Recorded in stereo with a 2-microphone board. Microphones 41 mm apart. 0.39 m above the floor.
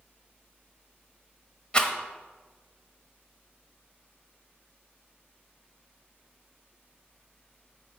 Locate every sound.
1.7 s a rattle: 25° left (ahead or behind), 0.8 m